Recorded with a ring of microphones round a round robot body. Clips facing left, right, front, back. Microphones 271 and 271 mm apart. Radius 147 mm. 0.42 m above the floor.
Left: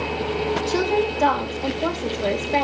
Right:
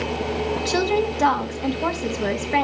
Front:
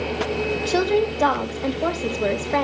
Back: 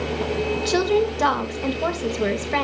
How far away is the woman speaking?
About 2.5 m.